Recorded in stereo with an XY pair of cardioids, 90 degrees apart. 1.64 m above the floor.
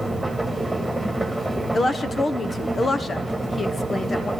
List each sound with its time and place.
0.0 s a machine running: 5° right, 2.5 m
1.7 s a woman speaking: 40° left, 1.1 m